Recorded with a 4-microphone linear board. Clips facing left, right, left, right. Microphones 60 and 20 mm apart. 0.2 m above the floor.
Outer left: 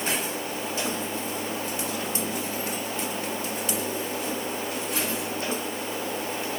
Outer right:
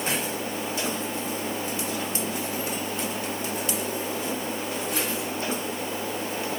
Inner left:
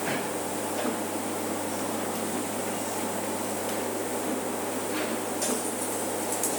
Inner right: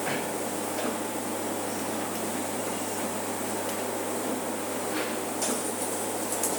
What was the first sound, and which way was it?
Only background noise.